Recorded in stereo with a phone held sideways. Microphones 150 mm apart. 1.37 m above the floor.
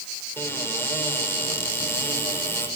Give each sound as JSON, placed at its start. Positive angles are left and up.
{"t": 0.4, "sound": "a cupboard door", "side_deg": 15, "distance_m": 6.5}